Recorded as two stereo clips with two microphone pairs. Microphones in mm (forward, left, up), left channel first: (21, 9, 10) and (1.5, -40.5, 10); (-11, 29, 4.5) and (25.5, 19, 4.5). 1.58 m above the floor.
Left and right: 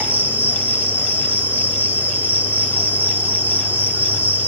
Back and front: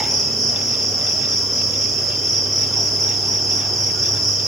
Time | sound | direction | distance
0.0 | an insect | 110° right | 0.8 m